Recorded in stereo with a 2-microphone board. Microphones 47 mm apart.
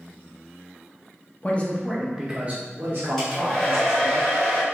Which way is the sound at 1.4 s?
35° left (ahead or behind).